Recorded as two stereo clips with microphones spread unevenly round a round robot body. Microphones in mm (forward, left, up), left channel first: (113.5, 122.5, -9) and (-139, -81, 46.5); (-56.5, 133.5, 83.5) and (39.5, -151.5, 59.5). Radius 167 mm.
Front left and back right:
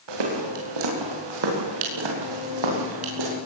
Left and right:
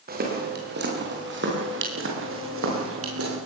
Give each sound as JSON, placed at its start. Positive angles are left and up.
{"t": 0.1, "sound": "footsteps", "azimuth_deg": -135, "distance_m": 8.0}